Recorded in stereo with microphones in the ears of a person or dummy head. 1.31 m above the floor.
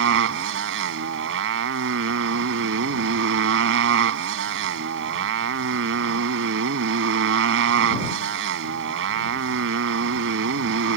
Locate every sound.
0.0 s a motorcycle: 80° right